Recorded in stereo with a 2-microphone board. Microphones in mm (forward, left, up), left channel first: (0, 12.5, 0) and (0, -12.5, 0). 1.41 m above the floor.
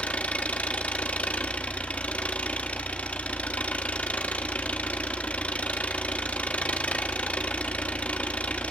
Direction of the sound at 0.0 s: 65° left (ahead or behind).